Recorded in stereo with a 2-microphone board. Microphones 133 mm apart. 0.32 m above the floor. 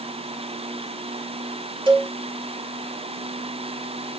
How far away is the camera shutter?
I don't hear a camera shutter.